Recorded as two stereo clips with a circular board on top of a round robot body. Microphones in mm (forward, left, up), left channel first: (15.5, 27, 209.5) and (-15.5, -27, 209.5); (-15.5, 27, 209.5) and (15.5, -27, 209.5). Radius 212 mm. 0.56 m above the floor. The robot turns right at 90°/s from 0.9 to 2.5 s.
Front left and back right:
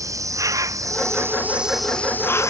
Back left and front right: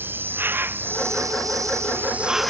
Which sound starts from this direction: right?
An insect, at 0.0 s.